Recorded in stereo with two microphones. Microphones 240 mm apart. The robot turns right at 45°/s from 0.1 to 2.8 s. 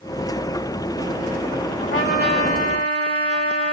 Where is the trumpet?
50° left, 1.2 m; by 3.7 s 95° left, 1.2 m.